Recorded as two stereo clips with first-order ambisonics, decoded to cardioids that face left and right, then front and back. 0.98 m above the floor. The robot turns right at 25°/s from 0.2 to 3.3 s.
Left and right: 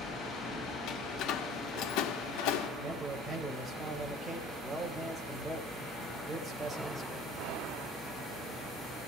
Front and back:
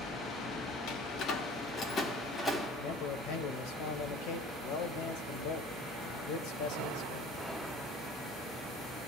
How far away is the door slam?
About 1.6 m.